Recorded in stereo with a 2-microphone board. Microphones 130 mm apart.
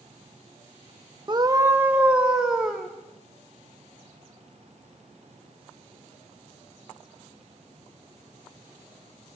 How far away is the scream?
About 0.9 m.